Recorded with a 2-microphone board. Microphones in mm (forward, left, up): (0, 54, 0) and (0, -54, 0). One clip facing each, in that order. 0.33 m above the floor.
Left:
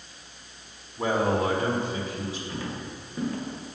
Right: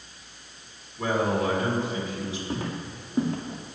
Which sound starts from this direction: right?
Footsteps, at 2.5 s.